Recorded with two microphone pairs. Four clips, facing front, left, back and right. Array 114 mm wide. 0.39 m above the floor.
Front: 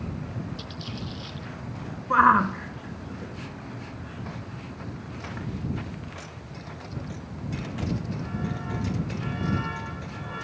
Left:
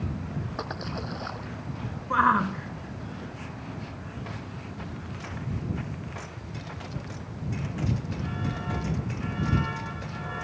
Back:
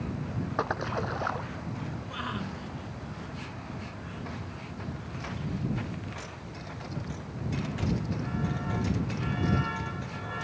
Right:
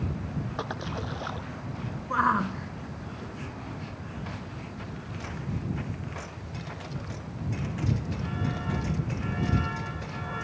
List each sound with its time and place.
0.6 s a splash: 175° right
2.1 s a shout: 10° left